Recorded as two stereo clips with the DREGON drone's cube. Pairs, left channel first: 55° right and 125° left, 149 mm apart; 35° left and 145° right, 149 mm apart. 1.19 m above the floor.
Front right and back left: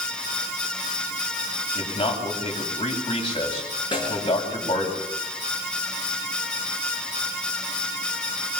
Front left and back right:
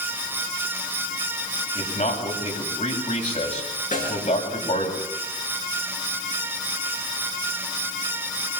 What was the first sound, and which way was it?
A man speaking, 5° right.